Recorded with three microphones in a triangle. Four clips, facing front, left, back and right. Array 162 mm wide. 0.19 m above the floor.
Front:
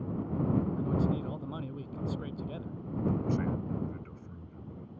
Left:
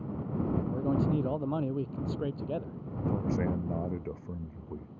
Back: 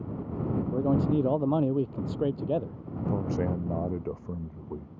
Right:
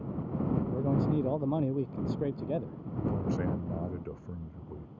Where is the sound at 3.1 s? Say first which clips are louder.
Left 2 dB, back 3 dB; 175° left.